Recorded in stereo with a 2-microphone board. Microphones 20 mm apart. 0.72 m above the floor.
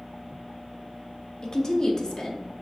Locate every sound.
1.4 s a woman speaking: 40° left (ahead or behind), 0.8 m